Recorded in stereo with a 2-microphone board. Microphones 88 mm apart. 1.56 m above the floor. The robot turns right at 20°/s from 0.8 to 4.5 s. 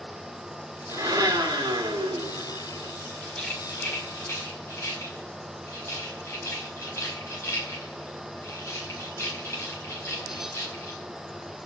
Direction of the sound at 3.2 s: 5° left (ahead or behind).